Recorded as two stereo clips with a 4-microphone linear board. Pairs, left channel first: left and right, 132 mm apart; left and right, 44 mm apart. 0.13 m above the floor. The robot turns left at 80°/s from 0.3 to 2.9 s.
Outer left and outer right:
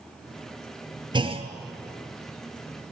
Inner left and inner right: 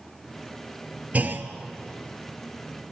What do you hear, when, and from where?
1.1 s a clunk: 40° right (ahead or behind), 1.1 m; by 1.5 s 55° right (ahead or behind), 1.1 m